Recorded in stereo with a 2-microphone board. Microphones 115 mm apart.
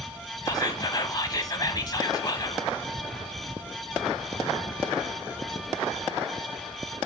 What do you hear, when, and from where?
0.5 s whispering: 35° left (ahead or behind), 1.1 m